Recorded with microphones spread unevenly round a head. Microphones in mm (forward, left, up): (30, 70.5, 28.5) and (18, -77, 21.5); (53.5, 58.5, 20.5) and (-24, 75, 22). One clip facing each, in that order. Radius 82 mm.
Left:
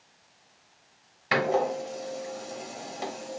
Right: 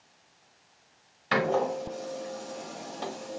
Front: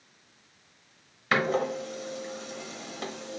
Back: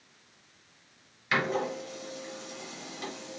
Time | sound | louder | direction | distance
1.3 | a door slam | left 1 dB, front 3 dB | 10° left | 0.6 m